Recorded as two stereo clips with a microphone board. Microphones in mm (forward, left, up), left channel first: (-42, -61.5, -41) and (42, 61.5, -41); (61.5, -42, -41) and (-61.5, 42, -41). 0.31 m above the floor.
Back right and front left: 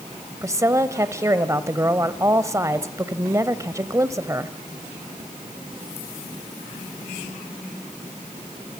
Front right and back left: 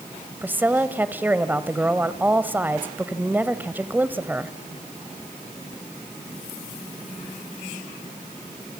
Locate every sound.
0.4 s a woman speaking: 90° left, 0.9 m